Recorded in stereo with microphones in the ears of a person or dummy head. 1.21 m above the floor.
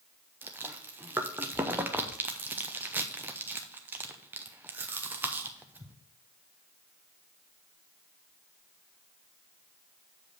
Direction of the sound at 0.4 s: 15° right (ahead or behind).